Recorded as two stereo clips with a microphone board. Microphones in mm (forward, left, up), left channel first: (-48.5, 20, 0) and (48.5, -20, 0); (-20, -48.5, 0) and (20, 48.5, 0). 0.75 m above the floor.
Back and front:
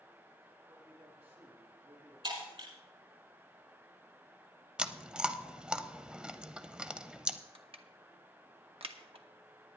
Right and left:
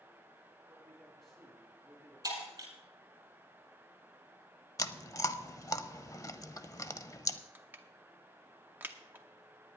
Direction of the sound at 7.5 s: 5° right.